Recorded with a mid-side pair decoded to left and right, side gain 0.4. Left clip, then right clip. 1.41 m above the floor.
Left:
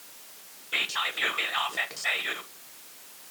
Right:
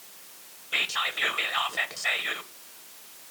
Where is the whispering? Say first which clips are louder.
Right 1 dB; 5° right, 1.3 m.